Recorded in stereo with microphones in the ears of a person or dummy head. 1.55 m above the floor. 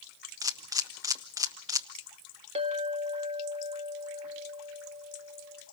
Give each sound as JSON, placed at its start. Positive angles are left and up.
{"t": 0.4, "sound": "a camera shutter", "side_deg": -20, "distance_m": 0.9}
{"t": 2.5, "sound": "a clink", "side_deg": -35, "distance_m": 1.6}